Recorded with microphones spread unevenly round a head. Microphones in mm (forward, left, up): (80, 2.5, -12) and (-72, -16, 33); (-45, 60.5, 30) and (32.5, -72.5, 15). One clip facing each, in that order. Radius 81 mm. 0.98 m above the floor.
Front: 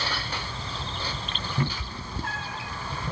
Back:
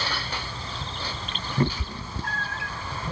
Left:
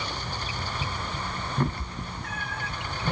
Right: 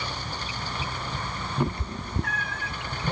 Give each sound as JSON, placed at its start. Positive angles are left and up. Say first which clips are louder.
{"t": 1.6, "sound": "a cat meowing", "louder": "back 7 dB, right 2 dB", "azimuth_deg": -145, "distance_m": 0.6}